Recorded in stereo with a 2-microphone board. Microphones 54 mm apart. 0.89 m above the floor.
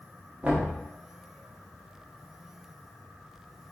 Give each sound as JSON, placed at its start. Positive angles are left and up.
{"t": 0.4, "sound": "knocking", "side_deg": -25, "distance_m": 1.0}